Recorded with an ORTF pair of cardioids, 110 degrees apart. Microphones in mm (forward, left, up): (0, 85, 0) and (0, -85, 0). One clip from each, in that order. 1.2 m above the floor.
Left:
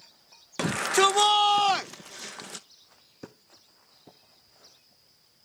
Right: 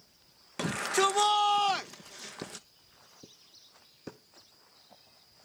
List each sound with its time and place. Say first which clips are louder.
0.6 s a shout: left 5 dB; 25° left